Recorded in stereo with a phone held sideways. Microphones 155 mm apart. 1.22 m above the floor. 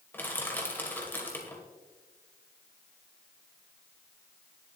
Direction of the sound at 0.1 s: 15° left (ahead or behind).